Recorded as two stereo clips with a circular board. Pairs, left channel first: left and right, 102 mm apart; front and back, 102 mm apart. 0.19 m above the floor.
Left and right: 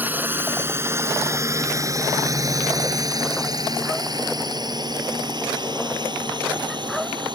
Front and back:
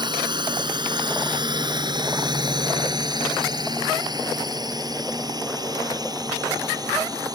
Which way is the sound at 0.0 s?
155° right.